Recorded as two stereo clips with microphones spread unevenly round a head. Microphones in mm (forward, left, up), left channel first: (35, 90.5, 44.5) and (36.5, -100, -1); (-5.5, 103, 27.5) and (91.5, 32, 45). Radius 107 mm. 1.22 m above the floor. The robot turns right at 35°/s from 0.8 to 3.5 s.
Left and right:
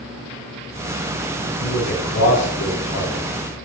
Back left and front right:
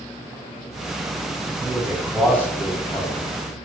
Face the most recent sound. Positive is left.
turn(degrees=105)